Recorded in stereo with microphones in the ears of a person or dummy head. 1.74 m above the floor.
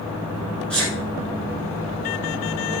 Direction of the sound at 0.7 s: 5° left (ahead or behind).